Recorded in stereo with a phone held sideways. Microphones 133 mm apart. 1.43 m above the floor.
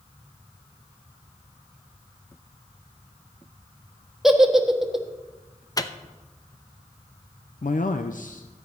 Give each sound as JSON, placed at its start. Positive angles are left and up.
{"t": 4.2, "sound": "a giggle", "side_deg": 0, "distance_m": 1.2}
{"t": 5.8, "sound": "a microwave", "side_deg": 30, "distance_m": 0.6}
{"t": 7.6, "sound": "a man speaking", "side_deg": 75, "distance_m": 0.6}